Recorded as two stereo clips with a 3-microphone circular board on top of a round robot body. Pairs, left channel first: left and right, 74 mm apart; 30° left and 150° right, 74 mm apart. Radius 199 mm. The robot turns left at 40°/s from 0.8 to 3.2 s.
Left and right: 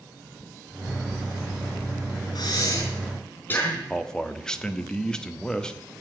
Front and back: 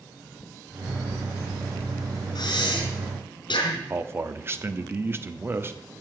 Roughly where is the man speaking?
Behind.